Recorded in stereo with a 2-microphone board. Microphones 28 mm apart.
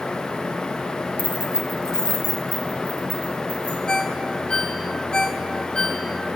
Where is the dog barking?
No dog barking in this recording.